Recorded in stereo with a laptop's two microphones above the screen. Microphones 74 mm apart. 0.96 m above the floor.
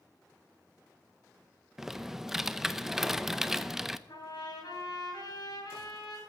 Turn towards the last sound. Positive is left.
turn(degrees=80)